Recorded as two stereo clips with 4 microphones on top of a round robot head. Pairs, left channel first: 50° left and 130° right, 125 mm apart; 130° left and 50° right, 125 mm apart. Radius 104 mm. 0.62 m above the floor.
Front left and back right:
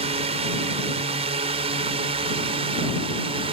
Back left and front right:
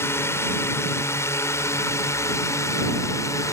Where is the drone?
160° right; by 3.5 s 165° right.